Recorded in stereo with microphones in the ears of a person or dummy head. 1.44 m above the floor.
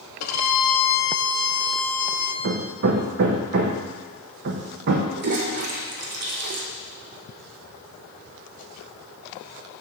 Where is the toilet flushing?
50° right (ahead or behind), 0.9 m.